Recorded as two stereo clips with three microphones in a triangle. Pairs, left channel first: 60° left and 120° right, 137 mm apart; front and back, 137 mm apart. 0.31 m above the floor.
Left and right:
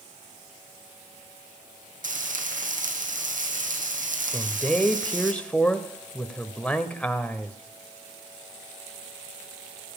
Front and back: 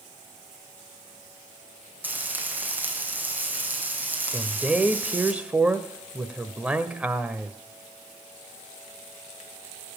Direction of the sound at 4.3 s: 120° left.